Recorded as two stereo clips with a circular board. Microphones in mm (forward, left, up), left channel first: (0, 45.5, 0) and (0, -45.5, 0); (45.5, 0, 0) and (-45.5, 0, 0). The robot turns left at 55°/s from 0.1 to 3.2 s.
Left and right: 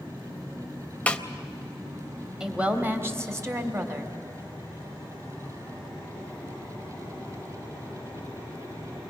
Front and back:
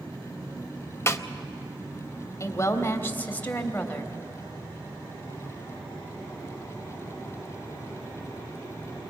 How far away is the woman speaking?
About 1.6 m.